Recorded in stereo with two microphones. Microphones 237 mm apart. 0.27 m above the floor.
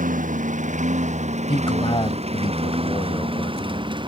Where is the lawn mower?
35° right (ahead or behind); by 4.1 s 20° right (ahead or behind).